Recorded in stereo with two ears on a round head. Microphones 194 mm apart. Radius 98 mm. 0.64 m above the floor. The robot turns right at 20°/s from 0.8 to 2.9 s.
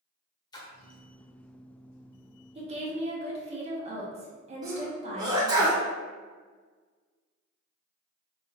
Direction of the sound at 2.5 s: 30° right (ahead or behind).